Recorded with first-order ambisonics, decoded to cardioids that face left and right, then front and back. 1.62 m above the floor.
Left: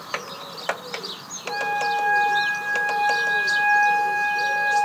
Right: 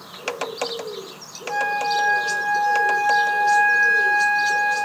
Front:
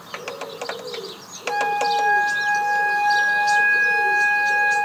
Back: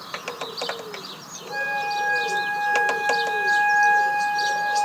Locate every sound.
1.5 s a flute: 5° right, 2 m